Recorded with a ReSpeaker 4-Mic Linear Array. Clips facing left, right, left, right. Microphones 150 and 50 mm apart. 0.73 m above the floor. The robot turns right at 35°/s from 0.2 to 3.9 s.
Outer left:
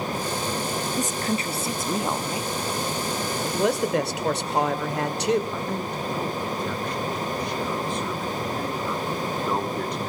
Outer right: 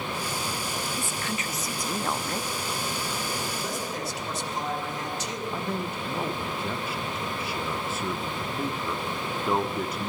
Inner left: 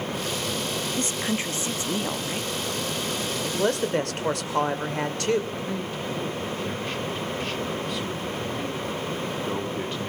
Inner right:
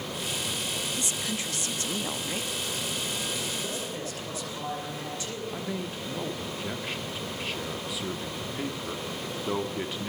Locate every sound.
1.0 s a woman speaking: 120° left, 0.7 m; by 2.5 s 175° left, 0.7 m
3.4 s a man speaking: 75° left (ahead or behind), 2.5 m; by 5.4 s 70° left (ahead or behind), 2.5 m
5.5 s a man speaking: 5° right (ahead or behind), 1.4 m